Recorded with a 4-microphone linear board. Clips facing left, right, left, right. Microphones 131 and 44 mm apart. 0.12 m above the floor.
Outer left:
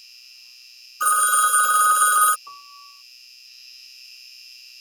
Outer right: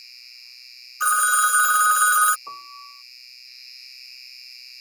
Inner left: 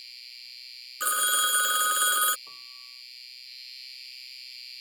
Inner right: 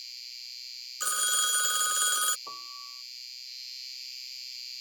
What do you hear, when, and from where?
0.0 s an insect: 10° left (ahead or behind)
1.0 s a phone ringing: 25° left (ahead or behind)
2.5 s a piano: 40° right (ahead or behind)